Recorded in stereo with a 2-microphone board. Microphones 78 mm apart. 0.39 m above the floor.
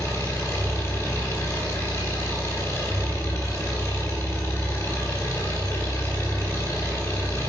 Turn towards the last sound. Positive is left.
turn(degrees=35)  # may be behind; listen again after turning